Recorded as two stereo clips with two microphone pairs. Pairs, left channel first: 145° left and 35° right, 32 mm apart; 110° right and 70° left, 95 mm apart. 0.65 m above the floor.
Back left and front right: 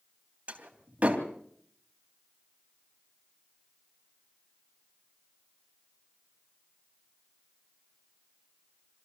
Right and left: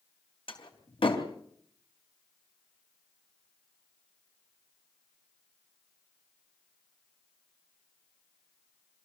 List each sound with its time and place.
0.5 s a door slam: 90° right, 3 m